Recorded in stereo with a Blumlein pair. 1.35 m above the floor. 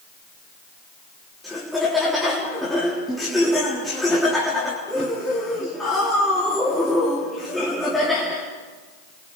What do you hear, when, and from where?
1.4 s laughter: 5° left, 4 m